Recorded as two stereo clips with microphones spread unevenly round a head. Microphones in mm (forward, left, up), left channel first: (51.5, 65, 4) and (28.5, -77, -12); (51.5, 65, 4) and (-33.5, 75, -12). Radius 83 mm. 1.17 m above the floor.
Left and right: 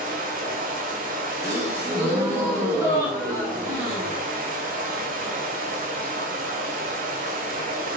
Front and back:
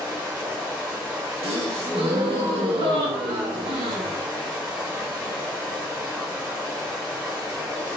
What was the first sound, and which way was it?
Running water, 100° right.